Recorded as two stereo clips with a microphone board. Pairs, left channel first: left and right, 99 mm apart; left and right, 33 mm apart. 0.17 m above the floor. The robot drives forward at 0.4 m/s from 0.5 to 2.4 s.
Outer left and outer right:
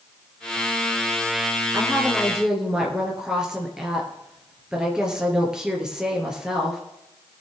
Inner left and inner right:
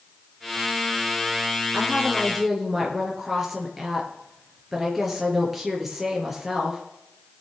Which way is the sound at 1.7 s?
5° right (ahead or behind).